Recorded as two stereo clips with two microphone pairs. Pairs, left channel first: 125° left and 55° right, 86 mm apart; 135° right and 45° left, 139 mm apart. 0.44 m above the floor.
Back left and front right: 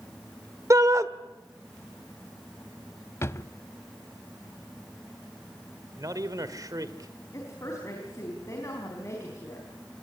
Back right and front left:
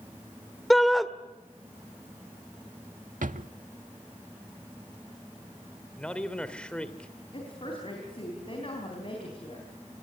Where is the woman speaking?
Straight behind, 4 m.